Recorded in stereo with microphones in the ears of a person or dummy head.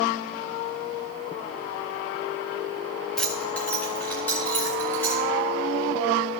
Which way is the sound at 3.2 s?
10° left (ahead or behind).